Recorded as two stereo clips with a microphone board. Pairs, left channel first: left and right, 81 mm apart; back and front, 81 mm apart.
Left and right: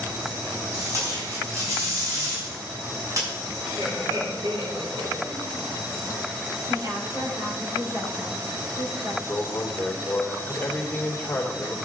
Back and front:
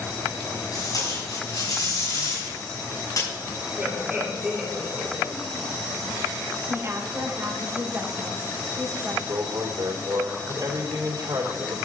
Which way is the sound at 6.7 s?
50° right.